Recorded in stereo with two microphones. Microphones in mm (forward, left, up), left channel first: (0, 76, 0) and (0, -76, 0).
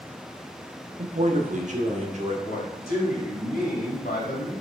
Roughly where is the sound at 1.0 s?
Right.